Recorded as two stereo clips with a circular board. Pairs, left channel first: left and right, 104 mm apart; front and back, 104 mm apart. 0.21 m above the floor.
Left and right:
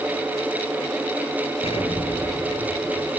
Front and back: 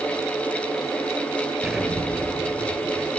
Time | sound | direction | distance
1.6 | an explosion | 90° left | 4.5 m